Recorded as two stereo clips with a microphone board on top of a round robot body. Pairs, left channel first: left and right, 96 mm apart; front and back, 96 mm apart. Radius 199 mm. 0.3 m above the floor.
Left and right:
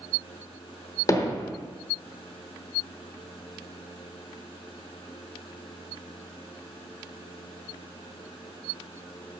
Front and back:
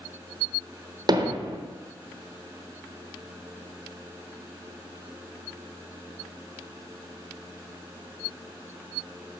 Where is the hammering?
140° left, 1.4 m.